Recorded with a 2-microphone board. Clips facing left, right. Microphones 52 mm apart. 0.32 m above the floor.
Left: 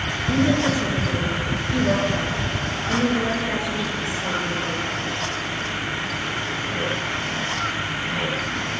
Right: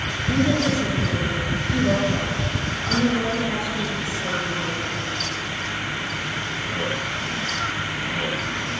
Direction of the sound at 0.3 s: 5° left (ahead or behind).